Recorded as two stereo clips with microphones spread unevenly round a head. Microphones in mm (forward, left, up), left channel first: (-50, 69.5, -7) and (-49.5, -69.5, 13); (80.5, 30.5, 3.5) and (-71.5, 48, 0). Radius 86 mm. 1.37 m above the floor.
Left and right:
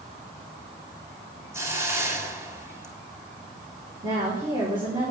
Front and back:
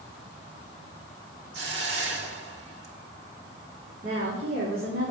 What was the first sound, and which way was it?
A hiss, 160° right.